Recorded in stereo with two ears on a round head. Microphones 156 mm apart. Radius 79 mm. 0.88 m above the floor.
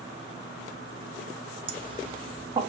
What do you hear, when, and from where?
1.7 s laughter: 30° right (ahead or behind), 1.1 m